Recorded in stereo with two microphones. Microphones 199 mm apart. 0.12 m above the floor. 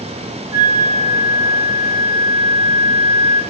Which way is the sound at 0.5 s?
40° left (ahead or behind).